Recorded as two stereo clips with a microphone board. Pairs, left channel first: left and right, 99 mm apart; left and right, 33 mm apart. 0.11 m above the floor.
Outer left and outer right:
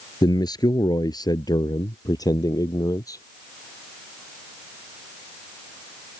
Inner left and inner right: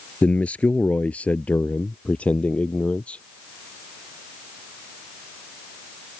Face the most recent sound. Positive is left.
turn(degrees=35)  # may be behind; listen again after turning